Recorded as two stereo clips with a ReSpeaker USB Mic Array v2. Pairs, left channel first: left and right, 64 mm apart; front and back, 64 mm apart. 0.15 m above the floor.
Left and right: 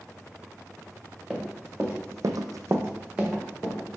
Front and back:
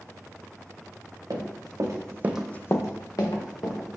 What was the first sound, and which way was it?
Running footsteps, 165° right.